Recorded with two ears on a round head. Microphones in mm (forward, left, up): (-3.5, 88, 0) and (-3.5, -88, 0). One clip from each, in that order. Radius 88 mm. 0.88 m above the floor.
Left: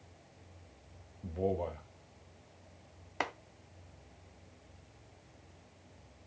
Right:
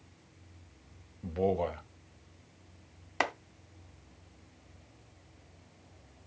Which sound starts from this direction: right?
A man speaking, at 1.2 s.